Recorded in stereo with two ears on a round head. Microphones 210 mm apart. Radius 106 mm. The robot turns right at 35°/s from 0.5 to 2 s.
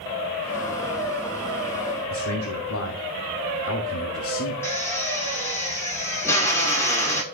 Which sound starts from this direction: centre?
A drill, at 4.6 s.